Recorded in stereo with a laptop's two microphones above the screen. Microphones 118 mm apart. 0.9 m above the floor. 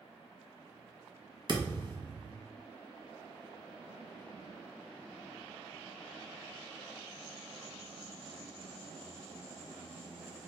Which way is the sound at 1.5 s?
45° right (ahead or behind).